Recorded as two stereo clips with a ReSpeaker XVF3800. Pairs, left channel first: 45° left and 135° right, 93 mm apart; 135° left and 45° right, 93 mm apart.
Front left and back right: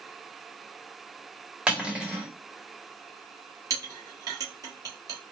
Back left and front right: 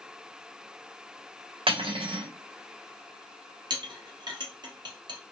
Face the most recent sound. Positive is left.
turn(degrees=-85)